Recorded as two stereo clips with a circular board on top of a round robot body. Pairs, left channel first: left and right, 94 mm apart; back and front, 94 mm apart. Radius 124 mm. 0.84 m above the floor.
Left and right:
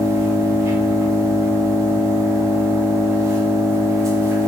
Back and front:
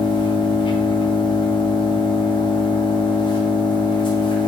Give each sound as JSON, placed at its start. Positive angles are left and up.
{"t": 0.0, "sound": "an engine running", "azimuth_deg": -150, "distance_m": 0.9}